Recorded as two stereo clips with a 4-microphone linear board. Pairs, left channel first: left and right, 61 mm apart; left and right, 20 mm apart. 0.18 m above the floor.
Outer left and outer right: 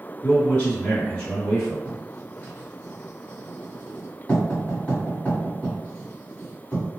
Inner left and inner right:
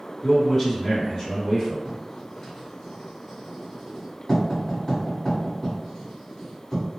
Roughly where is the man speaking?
Left.